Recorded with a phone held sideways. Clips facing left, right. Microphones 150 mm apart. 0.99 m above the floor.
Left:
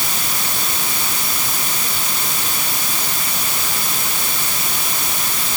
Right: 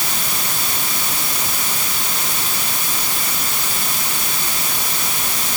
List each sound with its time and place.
Only background noise.